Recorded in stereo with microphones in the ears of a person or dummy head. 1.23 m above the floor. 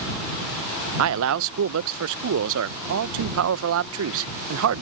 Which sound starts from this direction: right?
A man speaking, at 1.0 s.